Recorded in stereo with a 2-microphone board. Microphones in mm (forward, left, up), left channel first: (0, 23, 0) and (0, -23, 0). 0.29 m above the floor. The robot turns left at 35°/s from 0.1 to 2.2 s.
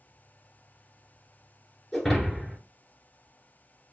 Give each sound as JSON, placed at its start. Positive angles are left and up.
{"t": 1.9, "sound": "breaking glass", "side_deg": 10, "distance_m": 1.9}